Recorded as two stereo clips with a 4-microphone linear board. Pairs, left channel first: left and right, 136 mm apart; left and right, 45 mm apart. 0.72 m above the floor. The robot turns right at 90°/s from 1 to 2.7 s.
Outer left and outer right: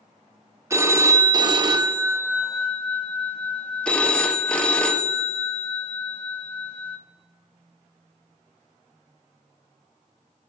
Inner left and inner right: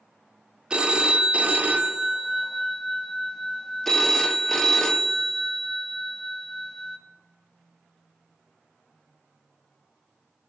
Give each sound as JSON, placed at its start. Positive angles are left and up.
{"t": 0.7, "sound": "a phone ringing", "azimuth_deg": -140, "distance_m": 0.5}